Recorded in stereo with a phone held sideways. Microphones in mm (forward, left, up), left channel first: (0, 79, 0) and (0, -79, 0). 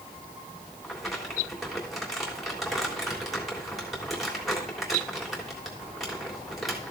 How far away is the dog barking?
I don't hear a dog barking.